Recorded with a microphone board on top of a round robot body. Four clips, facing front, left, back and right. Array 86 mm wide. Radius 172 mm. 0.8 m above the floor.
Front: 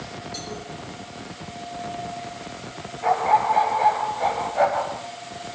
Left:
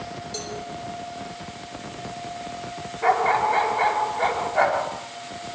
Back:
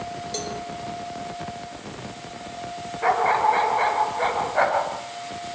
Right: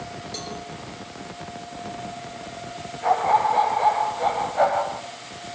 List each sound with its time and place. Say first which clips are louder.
0.3 s a cowbell: left 1 dB, back 4 dB; 175° right, 6 m
3.0 s a dog barking: right 1 dB, even; 145° left, 5.5 m